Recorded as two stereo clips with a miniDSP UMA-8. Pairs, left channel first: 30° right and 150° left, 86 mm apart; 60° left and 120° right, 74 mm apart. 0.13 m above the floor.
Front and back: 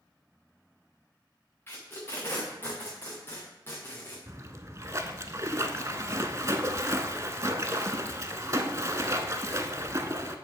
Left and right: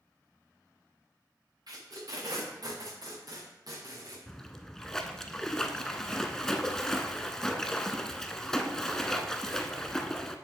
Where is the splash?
140° left, 0.6 m.